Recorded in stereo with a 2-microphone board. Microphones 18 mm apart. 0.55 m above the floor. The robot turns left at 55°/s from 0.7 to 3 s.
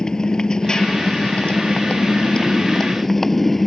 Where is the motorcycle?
140° left; by 3.7 s 15° left.